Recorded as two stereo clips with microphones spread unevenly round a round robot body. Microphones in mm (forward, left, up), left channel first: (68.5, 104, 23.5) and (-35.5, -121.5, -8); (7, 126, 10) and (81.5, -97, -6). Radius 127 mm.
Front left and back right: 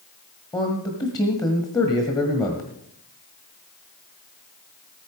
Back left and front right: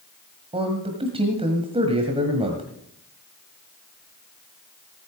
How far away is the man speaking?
About 1.7 m.